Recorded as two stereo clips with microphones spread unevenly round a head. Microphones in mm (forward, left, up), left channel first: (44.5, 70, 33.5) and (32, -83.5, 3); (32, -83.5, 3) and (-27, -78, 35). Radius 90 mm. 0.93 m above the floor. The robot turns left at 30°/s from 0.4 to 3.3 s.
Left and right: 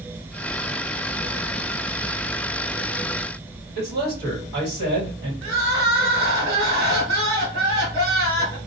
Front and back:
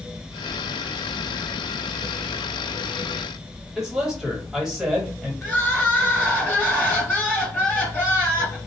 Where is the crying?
80° right, 1.9 m.